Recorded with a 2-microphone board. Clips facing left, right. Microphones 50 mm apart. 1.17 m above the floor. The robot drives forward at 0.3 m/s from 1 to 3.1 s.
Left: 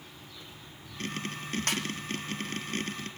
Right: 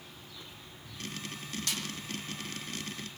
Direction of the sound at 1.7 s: 50° left (ahead or behind).